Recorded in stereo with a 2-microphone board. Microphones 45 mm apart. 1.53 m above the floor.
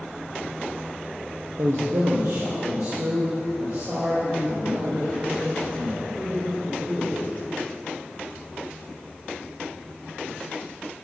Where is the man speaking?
75° right (ahead or behind), 0.6 m; by 7.2 s 80° right, 6 m.